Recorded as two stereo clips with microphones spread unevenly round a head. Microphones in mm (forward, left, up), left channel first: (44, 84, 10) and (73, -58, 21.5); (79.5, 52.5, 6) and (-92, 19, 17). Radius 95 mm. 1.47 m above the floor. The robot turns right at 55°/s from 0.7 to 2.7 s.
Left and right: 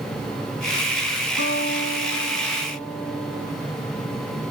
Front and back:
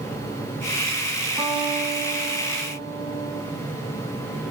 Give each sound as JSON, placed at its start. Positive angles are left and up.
{"t": 1.4, "sound": "a guitar", "azimuth_deg": 120, "distance_m": 6.0}